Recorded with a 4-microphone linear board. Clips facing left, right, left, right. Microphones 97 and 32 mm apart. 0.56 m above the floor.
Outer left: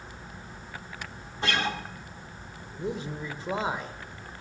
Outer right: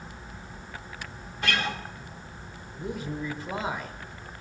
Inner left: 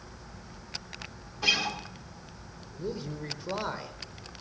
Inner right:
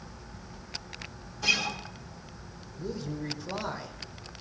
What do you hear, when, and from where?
1.4 s a guitar: 30° left (ahead or behind), 1.4 m
2.7 s a man speaking: 25° left (ahead or behind), 1.5 m